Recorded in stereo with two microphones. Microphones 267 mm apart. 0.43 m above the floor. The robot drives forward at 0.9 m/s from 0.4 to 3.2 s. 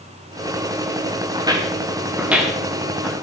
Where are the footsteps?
15° right (ahead or behind), 3 m; by 3.1 s centre (ahead or behind), 5 m.